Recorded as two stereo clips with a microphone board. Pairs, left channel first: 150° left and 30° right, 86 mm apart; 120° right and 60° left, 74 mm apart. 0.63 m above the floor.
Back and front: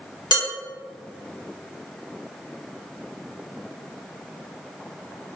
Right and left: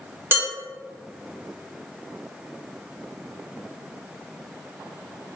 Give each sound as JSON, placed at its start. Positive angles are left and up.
{"t": 0.3, "sound": "dishes clattering", "azimuth_deg": 120, "distance_m": 1.3}